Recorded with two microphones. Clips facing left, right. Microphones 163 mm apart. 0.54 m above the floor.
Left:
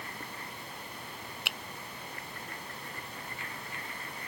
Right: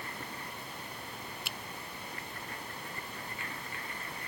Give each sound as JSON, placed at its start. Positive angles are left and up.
{"t": 1.4, "sound": "a finger snap", "side_deg": 70}